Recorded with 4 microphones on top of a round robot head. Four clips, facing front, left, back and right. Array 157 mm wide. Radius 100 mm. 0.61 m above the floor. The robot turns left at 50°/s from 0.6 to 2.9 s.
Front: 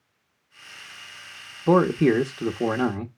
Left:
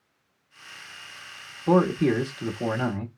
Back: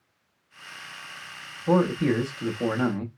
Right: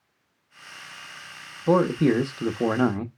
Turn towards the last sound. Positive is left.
turn(degrees=-70)